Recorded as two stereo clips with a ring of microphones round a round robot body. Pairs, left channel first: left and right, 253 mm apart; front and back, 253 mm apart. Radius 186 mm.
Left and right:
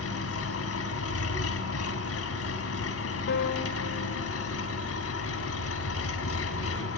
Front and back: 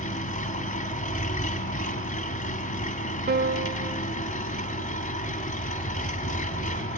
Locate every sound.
0.0 s an engine running: 60° left, 1.6 m
3.3 s a piano: 135° left, 1.5 m